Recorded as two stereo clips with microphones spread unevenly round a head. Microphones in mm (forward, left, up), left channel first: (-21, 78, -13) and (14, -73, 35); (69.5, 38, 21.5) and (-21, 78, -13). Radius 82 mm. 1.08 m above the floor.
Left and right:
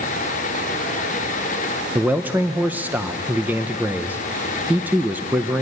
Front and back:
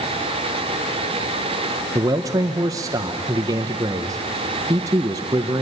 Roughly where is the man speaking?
Behind.